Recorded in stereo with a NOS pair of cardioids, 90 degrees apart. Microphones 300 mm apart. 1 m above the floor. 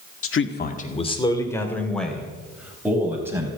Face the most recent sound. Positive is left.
turn(degrees=-10)